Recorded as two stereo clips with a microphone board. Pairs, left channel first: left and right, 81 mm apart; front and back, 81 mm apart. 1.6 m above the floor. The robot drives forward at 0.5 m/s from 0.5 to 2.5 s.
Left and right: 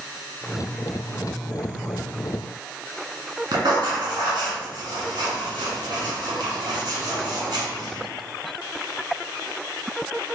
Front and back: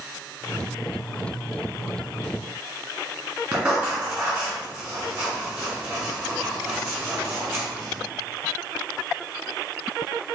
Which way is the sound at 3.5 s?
120° right.